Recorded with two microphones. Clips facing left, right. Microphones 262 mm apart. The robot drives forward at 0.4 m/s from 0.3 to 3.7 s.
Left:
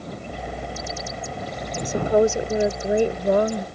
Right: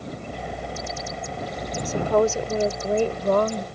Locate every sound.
1.9 s a woman speaking: 15° left (ahead or behind)